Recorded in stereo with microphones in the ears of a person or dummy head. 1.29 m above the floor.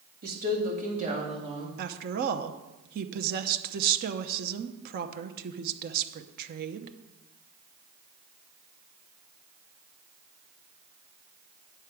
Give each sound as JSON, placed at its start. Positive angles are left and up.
{"t": 0.2, "sound": "a woman speaking", "side_deg": -50, "distance_m": 1.9}
{"t": 1.8, "sound": "a woman speaking", "side_deg": -50, "distance_m": 0.8}